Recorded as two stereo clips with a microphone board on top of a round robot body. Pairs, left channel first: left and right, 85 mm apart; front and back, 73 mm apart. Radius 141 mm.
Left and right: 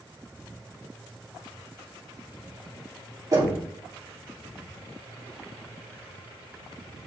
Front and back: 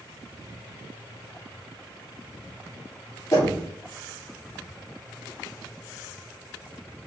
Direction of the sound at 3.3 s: 40° right.